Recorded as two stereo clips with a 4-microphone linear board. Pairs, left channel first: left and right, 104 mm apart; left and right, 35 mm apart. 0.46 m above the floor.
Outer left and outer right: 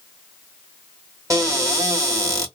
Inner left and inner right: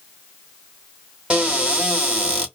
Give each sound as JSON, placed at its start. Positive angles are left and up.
{"t": 1.3, "sound": "a cupboard door", "side_deg": -35, "distance_m": 1.1}